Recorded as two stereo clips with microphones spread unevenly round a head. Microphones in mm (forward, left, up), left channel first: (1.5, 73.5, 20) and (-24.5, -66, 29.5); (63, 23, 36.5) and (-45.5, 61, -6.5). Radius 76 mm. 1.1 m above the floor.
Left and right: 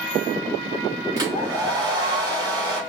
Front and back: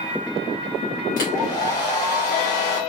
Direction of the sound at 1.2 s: 35° right.